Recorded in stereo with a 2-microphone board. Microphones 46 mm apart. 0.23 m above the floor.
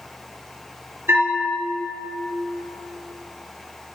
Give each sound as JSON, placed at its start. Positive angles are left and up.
{"t": 1.1, "sound": "a bell", "side_deg": -60, "distance_m": 4.5}